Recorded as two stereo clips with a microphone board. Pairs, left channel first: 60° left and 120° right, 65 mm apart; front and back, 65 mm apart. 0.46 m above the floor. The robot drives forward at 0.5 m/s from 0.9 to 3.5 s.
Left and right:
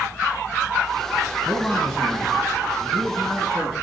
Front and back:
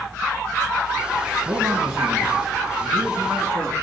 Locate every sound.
1.4 s a man speaking: 145° left, 3.5 m; by 3.7 s 155° left, 4.5 m